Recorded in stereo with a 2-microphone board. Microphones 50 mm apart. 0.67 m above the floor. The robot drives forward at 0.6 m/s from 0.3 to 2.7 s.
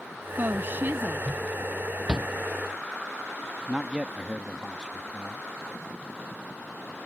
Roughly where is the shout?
Right.